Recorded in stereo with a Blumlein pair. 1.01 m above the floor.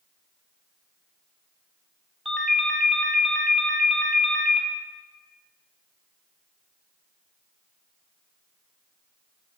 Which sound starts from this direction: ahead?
A ringtone, at 2.2 s.